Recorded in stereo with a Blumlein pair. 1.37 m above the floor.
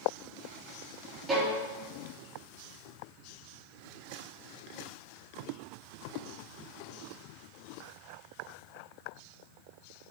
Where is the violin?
15° right, 3 m.